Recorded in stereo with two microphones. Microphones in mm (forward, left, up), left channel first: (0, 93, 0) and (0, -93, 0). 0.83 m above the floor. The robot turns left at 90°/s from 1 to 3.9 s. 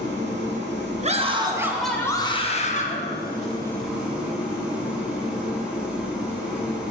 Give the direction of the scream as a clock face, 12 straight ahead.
4 o'clock.